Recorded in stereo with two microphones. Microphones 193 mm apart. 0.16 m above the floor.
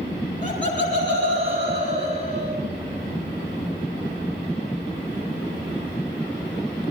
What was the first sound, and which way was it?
Laughter, 45° right (ahead or behind).